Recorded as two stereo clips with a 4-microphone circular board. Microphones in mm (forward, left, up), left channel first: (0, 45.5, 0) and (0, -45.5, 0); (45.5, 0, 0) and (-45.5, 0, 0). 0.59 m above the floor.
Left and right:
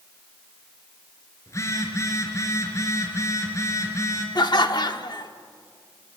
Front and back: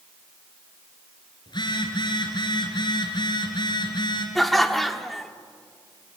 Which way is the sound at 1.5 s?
35° left.